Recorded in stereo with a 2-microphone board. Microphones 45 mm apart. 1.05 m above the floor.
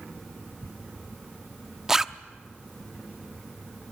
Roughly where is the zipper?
Centre.